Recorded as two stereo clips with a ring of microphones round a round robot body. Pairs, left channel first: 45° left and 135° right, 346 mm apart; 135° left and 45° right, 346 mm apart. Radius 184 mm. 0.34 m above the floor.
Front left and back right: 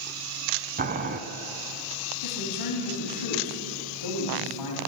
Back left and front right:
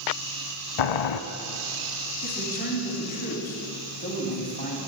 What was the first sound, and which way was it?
Boiling, 160° left.